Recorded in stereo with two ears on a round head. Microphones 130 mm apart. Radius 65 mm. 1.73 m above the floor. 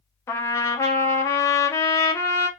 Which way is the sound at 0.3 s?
20° left (ahead or behind).